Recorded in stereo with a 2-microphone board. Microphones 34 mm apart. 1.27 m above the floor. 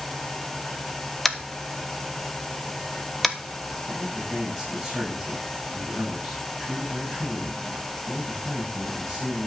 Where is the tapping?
5° left (ahead or behind), 1.0 m.